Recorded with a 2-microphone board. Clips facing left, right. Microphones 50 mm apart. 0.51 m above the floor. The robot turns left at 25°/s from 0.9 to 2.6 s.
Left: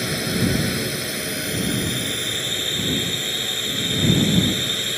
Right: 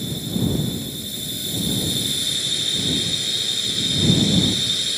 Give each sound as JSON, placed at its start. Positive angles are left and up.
{"t": 0.0, "sound": "a drone", "azimuth_deg": 70}